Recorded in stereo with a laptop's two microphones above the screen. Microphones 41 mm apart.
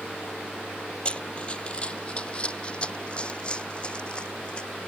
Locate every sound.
1.1 s running footsteps: 25° left (ahead or behind)